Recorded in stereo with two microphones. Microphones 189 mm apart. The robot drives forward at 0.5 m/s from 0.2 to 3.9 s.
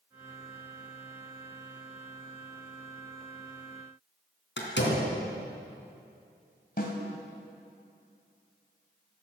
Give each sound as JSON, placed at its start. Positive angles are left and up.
{"t": 4.6, "sound": "a door slam", "side_deg": 75, "distance_m": 3.0}
{"t": 6.8, "sound": "a snare drum", "side_deg": 55, "distance_m": 2.5}